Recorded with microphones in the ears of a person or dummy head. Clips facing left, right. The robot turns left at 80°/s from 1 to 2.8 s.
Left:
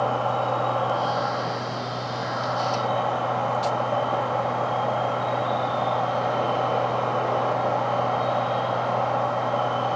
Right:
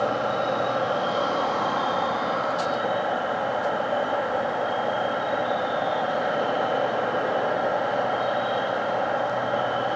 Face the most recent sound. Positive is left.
turn(degrees=-170)